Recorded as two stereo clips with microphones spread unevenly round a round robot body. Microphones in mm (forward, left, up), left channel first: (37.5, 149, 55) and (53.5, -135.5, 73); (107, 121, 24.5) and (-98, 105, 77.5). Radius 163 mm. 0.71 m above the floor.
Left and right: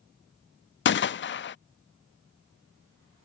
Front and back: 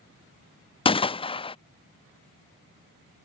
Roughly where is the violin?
I don't hear a violin.